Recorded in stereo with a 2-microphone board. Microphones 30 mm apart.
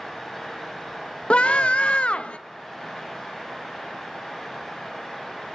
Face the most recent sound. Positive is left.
turn(degrees=40)  # may be behind; listen again after turning